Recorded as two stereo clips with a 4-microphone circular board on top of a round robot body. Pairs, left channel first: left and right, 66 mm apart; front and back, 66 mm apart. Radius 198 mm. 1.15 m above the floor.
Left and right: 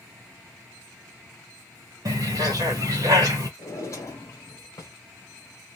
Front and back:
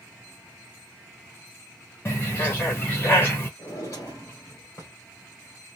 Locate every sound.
2.0 s a bird: 60° right, 0.6 m
3.6 s a drawer: 45° left, 1.1 m